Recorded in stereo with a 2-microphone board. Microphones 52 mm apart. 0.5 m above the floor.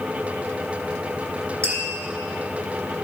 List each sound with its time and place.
1.6 s tapping: 60° right (ahead or behind), 2.5 m